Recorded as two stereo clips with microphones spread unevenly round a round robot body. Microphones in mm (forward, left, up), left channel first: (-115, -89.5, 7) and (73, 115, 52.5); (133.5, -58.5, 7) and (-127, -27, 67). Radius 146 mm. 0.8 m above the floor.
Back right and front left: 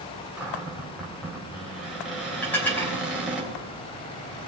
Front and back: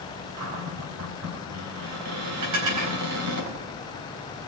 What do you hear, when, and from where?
0.4 s a cupboard door: 135° left, 3.5 m
2.4 s dishes clattering: 145° left, 4 m